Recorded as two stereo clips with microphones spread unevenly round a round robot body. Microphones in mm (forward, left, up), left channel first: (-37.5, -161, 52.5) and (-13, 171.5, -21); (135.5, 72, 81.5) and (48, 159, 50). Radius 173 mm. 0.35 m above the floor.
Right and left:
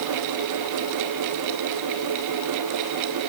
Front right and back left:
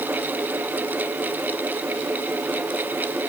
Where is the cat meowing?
No cat meowing in this recording.